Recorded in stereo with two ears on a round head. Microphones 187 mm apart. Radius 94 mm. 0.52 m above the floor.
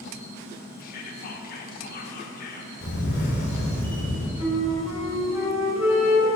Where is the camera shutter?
50° left (ahead or behind), 2 m.